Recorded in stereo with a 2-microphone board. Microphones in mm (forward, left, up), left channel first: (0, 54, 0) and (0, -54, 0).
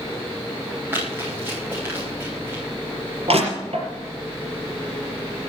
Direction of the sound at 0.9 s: 20° right (ahead or behind).